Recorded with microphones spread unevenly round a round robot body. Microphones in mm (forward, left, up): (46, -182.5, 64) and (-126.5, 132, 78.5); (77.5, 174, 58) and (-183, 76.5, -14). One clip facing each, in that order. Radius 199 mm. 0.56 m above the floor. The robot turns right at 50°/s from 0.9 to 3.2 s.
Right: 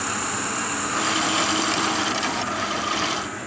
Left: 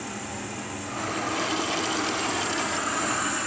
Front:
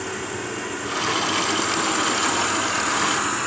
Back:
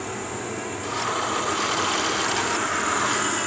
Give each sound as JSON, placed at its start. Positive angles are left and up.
{"t": 0.0, "sound": "an insect", "azimuth_deg": -40, "distance_m": 1.1}